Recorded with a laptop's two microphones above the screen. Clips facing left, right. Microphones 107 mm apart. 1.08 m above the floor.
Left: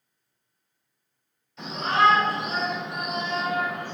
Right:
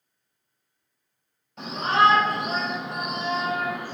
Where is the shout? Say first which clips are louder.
Right 1 dB; 50° right (ahead or behind), 1.3 m; by 3.9 s 5° right (ahead or behind), 0.7 m.